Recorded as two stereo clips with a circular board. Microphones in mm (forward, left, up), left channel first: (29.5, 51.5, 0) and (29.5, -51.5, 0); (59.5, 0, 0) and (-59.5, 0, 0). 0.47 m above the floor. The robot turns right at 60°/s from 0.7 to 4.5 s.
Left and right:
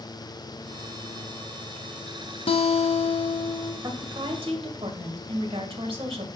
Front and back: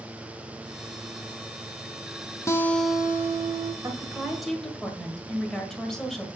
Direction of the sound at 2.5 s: 65° left.